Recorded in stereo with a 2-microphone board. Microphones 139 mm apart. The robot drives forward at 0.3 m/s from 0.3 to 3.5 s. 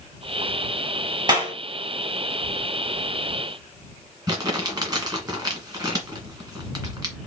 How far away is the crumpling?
About 2.0 m.